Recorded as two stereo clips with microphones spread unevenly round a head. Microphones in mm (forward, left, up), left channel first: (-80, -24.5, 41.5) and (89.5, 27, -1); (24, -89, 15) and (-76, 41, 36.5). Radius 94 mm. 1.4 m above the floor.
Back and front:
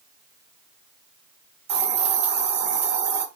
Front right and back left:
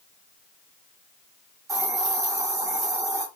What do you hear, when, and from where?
1.7 s a hiss: 70° left, 0.9 m